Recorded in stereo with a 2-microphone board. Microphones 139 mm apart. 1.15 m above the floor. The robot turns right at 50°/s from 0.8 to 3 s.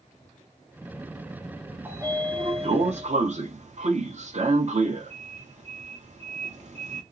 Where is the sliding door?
15° right (ahead or behind), 0.8 m; by 7.0 s 55° right (ahead or behind), 0.8 m.